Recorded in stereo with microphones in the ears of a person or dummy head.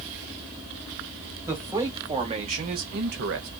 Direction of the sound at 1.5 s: 20° right (ahead or behind).